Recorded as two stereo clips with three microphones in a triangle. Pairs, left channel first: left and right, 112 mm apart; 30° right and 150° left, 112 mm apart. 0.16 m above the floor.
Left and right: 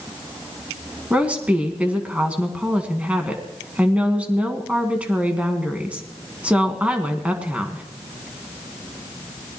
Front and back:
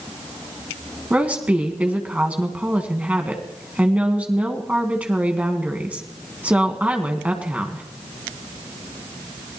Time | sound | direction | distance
1.1 | a woman speaking | 150° right | 1.6 m